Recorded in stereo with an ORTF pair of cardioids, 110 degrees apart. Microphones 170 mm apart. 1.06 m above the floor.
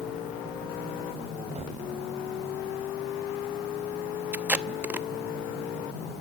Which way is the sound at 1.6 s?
40° right.